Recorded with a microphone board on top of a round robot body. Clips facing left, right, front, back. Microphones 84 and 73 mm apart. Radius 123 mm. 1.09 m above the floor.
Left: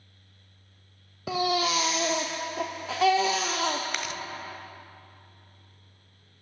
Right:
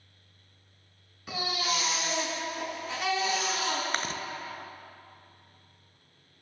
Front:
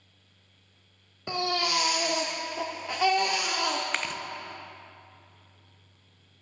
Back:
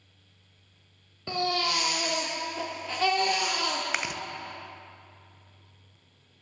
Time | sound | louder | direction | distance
1.3 | a baby crying | left 6 dB, even | 80° left | 0.7 m
3.9 | chewing | right 1 dB, even | 105° right | 0.6 m